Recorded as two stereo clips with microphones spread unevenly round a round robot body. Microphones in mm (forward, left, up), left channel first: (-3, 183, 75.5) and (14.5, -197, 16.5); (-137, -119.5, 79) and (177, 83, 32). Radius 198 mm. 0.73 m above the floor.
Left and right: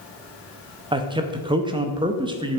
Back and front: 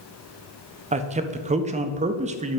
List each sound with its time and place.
0.9 s a man speaking: 25° right, 0.5 m